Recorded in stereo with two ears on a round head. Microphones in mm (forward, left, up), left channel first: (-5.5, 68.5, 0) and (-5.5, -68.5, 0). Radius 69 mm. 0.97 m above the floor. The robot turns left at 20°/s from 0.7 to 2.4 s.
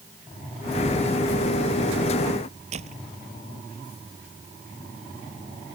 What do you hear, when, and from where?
2.7 s a door slam: 45° right (ahead or behind)